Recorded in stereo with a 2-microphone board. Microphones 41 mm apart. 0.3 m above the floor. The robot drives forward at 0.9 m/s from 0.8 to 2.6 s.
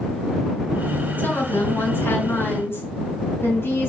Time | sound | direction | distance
1.2 | a woman speaking | 55° left (ahead or behind) | 3.5 m